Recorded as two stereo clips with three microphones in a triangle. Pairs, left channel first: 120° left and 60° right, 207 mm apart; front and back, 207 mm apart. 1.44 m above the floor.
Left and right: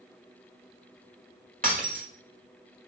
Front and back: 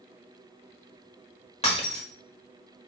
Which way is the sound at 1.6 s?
45° right.